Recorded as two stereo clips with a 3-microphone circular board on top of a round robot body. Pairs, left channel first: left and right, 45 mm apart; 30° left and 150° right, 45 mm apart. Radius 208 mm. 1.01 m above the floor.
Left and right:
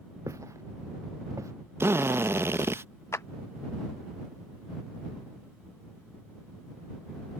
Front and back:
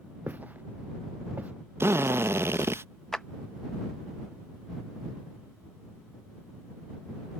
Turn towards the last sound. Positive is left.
turn(degrees=115)